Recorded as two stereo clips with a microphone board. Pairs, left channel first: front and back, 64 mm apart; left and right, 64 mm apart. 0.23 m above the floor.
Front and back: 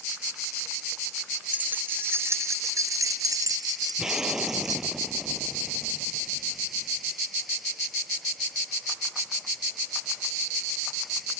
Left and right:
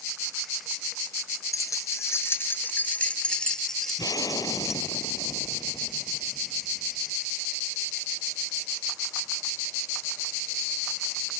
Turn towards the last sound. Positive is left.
turn(degrees=100)